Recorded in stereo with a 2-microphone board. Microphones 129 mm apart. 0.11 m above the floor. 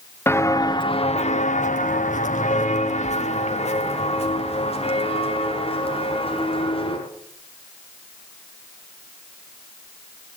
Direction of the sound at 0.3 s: 20° left (ahead or behind).